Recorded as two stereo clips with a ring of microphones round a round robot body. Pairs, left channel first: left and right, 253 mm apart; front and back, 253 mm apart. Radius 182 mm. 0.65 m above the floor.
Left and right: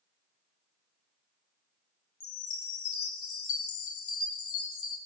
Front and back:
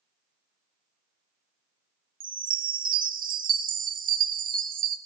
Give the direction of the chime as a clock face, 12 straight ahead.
8 o'clock.